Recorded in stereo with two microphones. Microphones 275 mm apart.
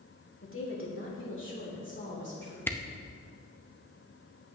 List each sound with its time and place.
0.4 s a woman speaking: 50° left (ahead or behind), 1.9 m; by 2.6 s 40° left (ahead or behind), 3.5 m
2.7 s a camera shutter: 10° left (ahead or behind), 0.6 m